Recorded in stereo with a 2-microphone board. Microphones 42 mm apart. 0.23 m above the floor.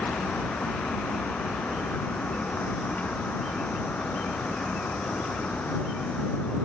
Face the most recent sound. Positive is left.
turn(degrees=40)  # may be behind; listen again after turning